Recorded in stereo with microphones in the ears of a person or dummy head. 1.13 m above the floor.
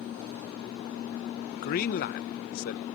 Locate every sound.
1.6 s a man speaking: 50° left (ahead or behind)